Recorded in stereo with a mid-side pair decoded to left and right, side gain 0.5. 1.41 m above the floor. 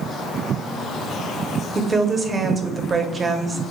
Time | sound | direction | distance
1.8 | a woman speaking | 30° right | 0.7 m